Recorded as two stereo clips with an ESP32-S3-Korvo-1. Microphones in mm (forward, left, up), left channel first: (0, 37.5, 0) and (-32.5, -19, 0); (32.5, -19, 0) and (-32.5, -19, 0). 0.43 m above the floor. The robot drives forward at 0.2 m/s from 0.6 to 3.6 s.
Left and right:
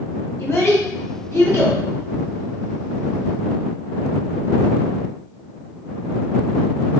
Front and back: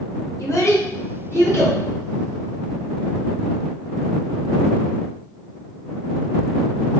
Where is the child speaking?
25° left, 1.0 m; by 1.8 s 35° left, 0.9 m.